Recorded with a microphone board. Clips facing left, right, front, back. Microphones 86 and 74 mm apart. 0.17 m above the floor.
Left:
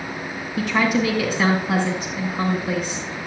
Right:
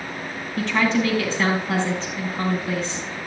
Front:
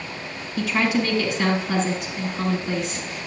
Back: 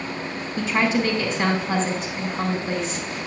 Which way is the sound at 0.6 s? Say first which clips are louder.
Left 1 dB, even; 160° left.